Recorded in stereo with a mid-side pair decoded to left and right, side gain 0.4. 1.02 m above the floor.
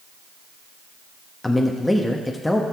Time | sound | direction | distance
1.4 | a man speaking | 10° left | 1.1 m